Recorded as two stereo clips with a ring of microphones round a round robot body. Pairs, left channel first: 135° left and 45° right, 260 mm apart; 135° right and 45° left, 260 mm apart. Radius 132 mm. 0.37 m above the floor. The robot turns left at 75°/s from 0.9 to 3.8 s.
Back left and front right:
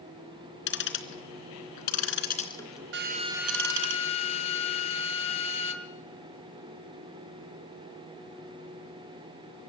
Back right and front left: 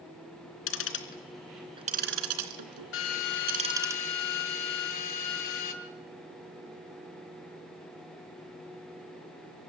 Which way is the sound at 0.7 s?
175° right.